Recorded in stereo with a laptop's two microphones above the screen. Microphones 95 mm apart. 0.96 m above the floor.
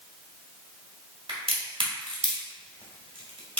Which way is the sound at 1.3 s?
60° right (ahead or behind).